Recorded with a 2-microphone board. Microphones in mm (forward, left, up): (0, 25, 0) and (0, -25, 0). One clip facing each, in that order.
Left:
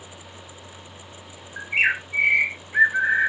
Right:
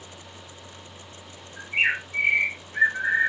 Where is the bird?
65° left (ahead or behind), 1.2 m.